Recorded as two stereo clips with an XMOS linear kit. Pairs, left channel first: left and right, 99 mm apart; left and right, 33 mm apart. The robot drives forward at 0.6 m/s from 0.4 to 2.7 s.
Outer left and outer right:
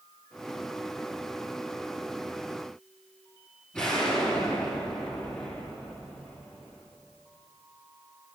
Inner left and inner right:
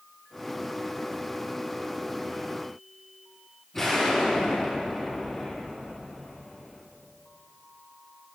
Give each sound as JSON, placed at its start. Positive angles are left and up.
{"t": 3.7, "sound": "an explosion", "side_deg": 10, "distance_m": 5.0}